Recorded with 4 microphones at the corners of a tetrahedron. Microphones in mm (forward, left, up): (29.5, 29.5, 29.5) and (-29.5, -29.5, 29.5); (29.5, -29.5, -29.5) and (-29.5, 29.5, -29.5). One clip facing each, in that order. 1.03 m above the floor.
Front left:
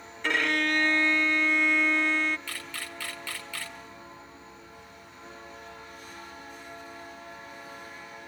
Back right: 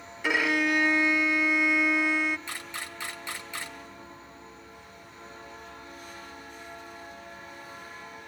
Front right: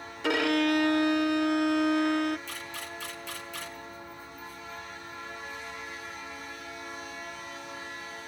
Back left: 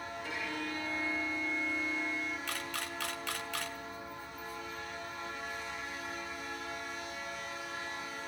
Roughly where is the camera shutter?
Behind left.